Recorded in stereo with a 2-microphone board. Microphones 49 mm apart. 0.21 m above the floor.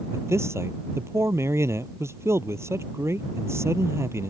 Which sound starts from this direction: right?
A man speaking, at 0.1 s.